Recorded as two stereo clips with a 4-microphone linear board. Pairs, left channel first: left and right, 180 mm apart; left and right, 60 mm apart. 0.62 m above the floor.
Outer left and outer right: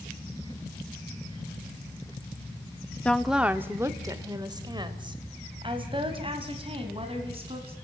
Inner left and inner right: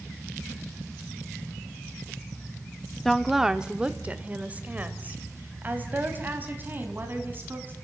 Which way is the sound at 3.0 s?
5° left (ahead or behind).